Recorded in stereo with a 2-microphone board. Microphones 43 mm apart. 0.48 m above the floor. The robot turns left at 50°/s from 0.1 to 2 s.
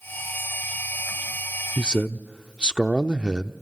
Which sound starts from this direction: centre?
A man speaking, at 1.8 s.